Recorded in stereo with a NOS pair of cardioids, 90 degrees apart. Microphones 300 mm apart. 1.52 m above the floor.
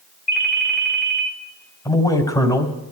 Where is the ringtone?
35° left, 2 m.